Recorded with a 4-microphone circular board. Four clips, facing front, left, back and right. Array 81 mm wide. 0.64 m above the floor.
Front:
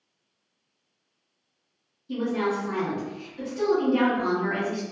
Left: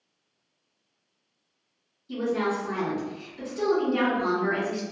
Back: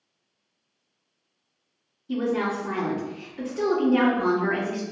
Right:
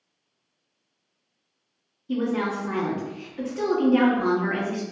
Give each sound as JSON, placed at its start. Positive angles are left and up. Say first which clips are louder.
{"t": 2.1, "sound": "a woman speaking", "louder": "right 1 dB, back 1 dB", "azimuth_deg": -120, "distance_m": 0.8}